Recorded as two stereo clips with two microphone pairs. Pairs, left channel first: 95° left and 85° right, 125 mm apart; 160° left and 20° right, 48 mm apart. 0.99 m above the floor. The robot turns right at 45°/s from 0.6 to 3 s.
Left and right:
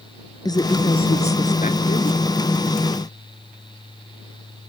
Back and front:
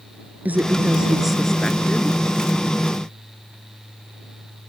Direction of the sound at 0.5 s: 35° left.